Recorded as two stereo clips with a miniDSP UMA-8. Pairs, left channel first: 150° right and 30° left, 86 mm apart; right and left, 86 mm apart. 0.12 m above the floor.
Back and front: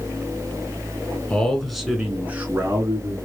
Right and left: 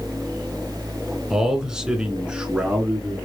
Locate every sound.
1.3 s a man speaking: 160° left, 1.1 m; by 3.2 s 20° left, 1.3 m